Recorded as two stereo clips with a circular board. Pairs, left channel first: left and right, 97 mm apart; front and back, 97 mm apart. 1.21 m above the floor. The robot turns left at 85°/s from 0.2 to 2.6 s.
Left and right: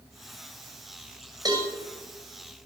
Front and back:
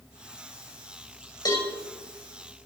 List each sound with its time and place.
1.4 s a cowbell: 40° right, 5.5 m; by 1.7 s 60° right, 5.5 m